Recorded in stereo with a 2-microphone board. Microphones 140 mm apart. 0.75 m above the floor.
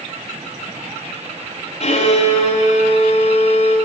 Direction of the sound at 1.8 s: 50° left (ahead or behind).